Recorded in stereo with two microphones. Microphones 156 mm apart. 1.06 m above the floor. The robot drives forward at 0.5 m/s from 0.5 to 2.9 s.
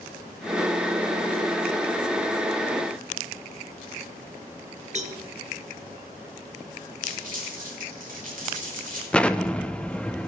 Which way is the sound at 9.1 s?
5° left (ahead or behind).